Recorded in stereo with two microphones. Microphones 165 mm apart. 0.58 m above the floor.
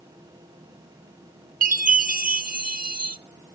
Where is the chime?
60° right (ahead or behind), 0.6 m.